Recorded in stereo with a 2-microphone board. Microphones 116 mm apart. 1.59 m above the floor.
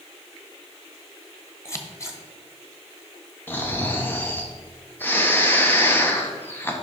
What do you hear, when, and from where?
1.6 s scissors: 25° left (ahead or behind), 1.1 m
3.5 s snoring: 20° left (ahead or behind), 1.2 m